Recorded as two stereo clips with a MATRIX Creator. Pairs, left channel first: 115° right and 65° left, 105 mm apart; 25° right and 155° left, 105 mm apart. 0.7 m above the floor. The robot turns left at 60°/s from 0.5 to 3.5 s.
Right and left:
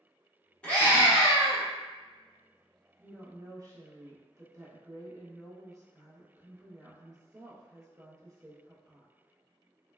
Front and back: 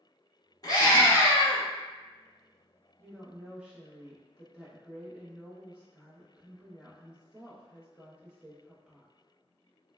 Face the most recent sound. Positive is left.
turn(degrees=85)